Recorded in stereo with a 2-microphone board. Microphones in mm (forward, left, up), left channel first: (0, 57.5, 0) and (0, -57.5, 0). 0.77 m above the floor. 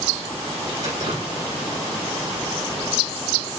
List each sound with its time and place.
0.8 s dripping: 65° right (ahead or behind), 2 m